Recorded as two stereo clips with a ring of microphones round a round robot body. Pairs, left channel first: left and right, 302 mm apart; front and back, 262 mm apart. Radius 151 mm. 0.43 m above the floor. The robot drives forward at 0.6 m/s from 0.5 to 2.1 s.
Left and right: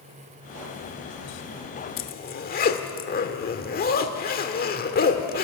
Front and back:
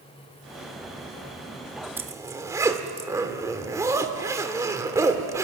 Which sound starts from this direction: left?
A zipper, at 2.0 s.